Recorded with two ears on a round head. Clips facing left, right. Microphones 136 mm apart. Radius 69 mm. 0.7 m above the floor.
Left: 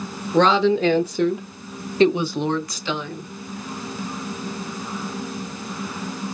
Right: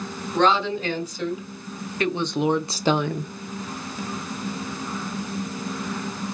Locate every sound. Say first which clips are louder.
0.3 s a woman speaking: left 4 dB; 60° left (ahead or behind), 1.9 m; by 3.3 s 55° right (ahead or behind), 0.9 m